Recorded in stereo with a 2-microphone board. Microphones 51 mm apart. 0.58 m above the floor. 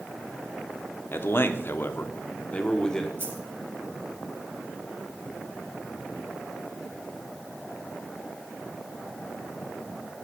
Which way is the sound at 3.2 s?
50° right (ahead or behind).